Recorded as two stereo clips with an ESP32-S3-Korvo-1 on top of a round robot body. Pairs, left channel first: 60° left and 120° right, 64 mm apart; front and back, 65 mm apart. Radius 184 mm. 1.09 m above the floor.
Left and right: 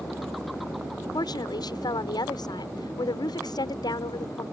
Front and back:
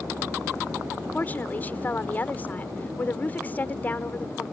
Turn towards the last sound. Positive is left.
turn(degrees=65)